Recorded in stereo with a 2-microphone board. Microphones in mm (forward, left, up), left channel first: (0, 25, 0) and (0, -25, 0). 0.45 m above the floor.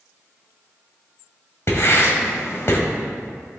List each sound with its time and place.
1.7 s writing: 55° left (ahead or behind), 1.7 m